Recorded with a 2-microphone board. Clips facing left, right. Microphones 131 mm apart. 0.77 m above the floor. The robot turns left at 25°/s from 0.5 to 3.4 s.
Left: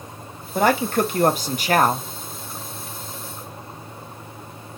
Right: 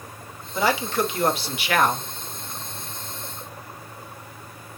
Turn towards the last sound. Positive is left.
turn(degrees=15)